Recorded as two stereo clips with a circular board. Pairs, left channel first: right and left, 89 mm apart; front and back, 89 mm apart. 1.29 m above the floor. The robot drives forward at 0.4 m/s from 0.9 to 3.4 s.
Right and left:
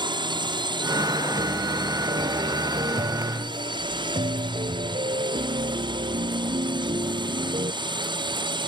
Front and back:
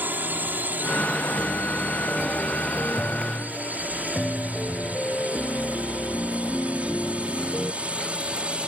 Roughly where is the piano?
Left.